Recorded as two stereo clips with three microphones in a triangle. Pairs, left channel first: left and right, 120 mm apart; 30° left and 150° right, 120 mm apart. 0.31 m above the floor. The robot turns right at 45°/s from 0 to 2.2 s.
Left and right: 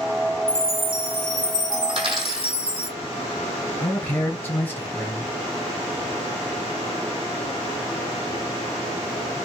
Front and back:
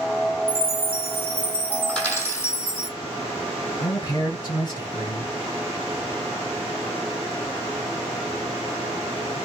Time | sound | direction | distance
0.5 | a chime | 165° left | 1.1 m
1.9 | a dropped coin | 55° right | 1.7 m
3.8 | a man speaking | 30° left | 1.2 m